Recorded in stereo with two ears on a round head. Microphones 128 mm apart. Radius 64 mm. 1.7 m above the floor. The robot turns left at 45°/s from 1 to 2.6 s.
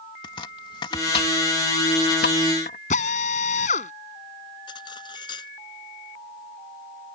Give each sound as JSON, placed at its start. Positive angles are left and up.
{"t": 0.2, "sound": "chopping", "side_deg": 40}
{"t": 2.9, "sound": "a drill", "side_deg": 55}
{"t": 4.7, "sound": "cutlery clinking", "side_deg": 35}